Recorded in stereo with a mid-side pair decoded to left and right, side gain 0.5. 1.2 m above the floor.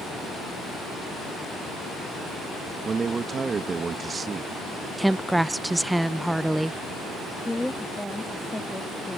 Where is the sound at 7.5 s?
5° left.